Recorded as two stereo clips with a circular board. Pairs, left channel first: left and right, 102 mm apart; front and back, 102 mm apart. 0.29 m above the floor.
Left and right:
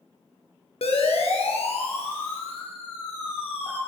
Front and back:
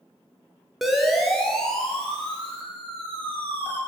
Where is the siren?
95° left, 5 m; by 3.8 s 70° left, 7.5 m.